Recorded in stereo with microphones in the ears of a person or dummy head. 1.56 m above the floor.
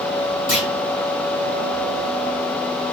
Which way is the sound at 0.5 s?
50° left (ahead or behind).